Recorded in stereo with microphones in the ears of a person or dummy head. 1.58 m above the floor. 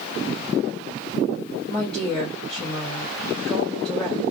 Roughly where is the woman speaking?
Centre.